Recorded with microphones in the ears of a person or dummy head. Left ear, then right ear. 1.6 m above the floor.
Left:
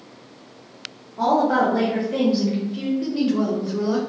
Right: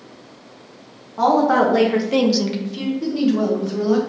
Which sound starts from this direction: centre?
A woman speaking, at 3.0 s.